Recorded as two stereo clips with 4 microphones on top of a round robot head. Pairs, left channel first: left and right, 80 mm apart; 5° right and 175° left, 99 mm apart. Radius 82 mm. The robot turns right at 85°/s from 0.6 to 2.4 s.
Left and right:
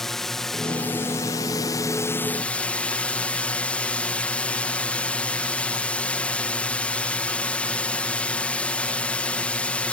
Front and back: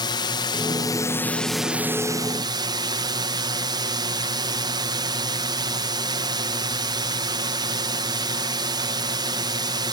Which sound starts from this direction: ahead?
A drone, at 0.0 s.